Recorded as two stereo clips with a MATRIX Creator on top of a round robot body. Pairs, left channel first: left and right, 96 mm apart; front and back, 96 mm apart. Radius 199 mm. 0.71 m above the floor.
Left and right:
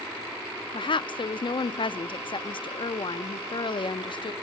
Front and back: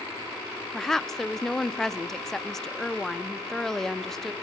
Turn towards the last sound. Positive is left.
turn(degrees=85)